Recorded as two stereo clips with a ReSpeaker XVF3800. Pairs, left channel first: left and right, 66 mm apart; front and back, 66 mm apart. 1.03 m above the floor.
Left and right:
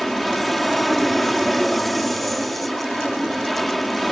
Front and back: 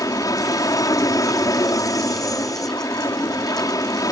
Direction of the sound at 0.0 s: Straight ahead.